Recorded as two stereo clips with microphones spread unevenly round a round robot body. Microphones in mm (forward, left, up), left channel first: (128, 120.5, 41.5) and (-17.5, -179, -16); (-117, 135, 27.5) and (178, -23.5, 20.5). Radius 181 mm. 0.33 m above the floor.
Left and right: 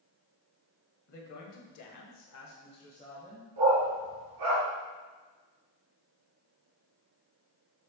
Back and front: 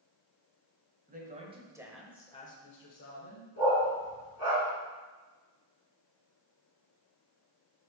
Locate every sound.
1.1 s a woman speaking: 30° left, 2.0 m; by 3.5 s 155° left, 1.7 m
3.6 s a dog barking: 150° right, 3 m